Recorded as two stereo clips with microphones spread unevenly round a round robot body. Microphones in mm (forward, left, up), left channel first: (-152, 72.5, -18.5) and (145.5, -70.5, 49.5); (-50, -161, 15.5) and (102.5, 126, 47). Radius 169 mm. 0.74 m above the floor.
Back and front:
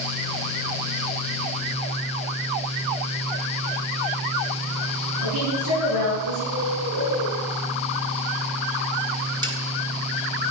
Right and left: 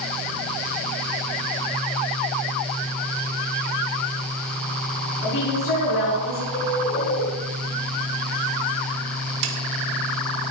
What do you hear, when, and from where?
5.2 s a woman speaking: 65° right, 6 m
6.5 s a bird: 60° right, 8.5 m
9.4 s a snare drum: 55° left, 2.5 m